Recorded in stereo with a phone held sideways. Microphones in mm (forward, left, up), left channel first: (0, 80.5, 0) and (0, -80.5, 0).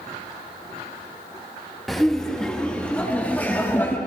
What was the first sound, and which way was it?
Laughter, centre (ahead or behind).